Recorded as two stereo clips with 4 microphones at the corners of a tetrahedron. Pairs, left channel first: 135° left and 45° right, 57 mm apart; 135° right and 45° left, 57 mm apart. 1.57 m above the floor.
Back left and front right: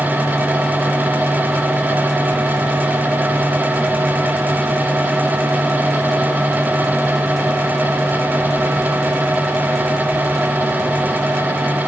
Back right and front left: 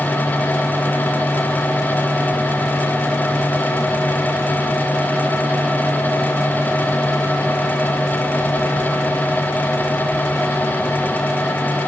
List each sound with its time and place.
Only background noise.